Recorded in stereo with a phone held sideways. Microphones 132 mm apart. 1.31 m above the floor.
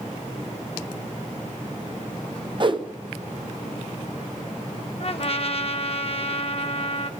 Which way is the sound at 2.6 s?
40° right (ahead or behind).